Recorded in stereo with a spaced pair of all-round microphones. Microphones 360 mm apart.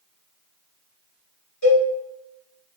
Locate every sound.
1.6 s a cowbell: 45° left (ahead or behind), 1.8 m